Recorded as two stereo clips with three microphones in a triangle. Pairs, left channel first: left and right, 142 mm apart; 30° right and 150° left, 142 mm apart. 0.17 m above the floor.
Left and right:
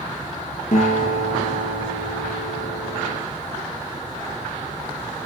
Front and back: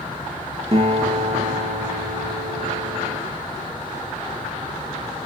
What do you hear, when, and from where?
0.7 s a guitar: 110° left, 4 m